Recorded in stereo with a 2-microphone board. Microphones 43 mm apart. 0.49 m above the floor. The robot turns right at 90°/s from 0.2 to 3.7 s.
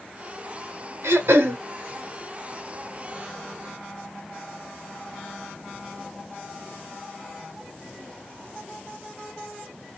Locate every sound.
1.0 s throat clearing: 105° right, 0.9 m; by 1.6 s 55° right, 0.9 m